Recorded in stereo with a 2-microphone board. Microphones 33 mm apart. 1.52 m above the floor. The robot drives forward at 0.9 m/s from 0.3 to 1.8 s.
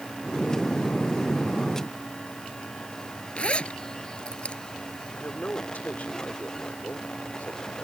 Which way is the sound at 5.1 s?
55° left (ahead or behind).